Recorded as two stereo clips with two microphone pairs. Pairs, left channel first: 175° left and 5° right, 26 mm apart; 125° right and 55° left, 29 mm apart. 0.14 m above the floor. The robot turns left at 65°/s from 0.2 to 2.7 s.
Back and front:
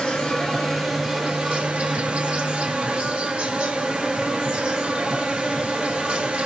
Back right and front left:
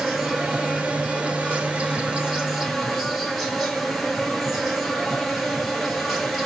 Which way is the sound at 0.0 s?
130° left.